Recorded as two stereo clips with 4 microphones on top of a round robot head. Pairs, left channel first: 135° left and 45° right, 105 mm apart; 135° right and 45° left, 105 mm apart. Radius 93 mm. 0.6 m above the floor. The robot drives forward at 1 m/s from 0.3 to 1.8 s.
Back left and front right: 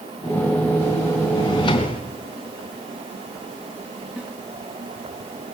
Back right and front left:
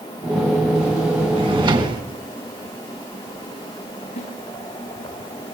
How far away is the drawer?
About 3.5 m.